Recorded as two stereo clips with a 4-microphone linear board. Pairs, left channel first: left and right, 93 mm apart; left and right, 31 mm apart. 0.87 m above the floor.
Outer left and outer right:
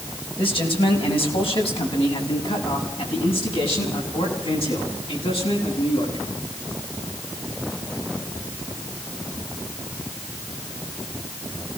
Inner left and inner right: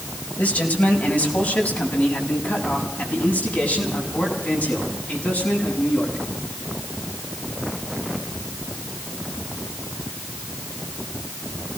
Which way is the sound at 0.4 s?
70° left (ahead or behind).